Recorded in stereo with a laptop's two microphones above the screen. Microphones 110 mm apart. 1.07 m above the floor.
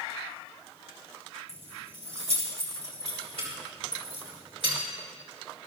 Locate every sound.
1.5 s keys jangling: 85° right, 4 m; by 4.8 s 60° right (ahead or behind), 5 m